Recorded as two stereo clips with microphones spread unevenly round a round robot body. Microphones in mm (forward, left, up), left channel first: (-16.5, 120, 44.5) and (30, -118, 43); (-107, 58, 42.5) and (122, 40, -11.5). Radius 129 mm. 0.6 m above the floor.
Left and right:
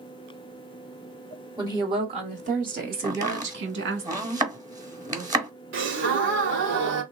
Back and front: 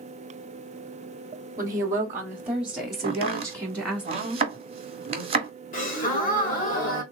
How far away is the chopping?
About 1.3 m.